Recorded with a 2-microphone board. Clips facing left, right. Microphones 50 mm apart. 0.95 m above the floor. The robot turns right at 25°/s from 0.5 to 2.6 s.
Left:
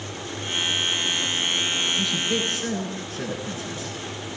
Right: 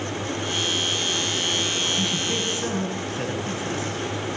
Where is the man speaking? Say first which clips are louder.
Left 1 dB; 40° right (ahead or behind), 9 m; by 3.9 s 55° right (ahead or behind), 9 m.